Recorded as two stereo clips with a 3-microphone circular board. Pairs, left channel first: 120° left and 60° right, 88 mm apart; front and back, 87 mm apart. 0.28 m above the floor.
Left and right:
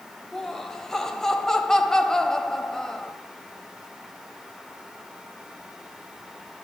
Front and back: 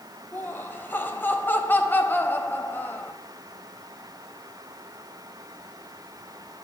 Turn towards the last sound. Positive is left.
turn(degrees=40)